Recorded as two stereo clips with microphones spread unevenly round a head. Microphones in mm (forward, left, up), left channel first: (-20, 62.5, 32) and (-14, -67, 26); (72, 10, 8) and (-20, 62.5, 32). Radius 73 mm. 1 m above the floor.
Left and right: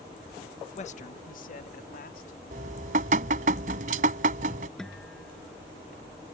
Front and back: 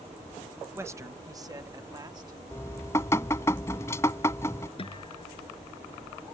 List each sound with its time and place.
0.8 s a man speaking: 75° left; by 2.4 s 95° left
2.5 s dripping: 110° right
4.8 s a guitar: 5° left